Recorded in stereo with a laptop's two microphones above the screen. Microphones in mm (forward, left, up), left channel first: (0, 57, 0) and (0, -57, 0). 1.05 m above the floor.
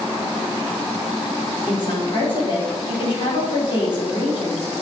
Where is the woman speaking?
45° left (ahead or behind), 3.5 m.